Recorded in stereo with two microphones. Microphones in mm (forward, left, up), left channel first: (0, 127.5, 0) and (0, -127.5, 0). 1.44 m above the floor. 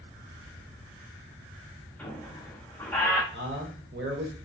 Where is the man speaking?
45° right (ahead or behind), 0.7 m.